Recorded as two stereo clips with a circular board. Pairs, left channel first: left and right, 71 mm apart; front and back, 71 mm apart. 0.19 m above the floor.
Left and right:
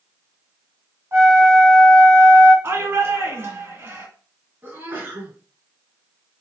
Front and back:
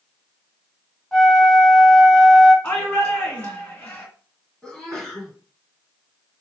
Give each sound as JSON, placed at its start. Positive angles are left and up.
{"t": 1.1, "sound": "a flute", "azimuth_deg": -90, "distance_m": 2.0}
{"t": 2.6, "sound": "a shout", "azimuth_deg": -65, "distance_m": 2.0}
{"t": 4.6, "sound": "a sneeze", "azimuth_deg": -75, "distance_m": 1.9}